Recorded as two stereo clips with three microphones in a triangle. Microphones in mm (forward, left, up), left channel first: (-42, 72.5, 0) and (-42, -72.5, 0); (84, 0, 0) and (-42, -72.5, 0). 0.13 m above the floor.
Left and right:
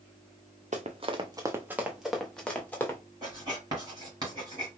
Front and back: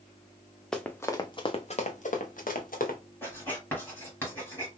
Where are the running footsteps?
55° right, 0.7 m; by 3.0 s 15° left, 1.3 m.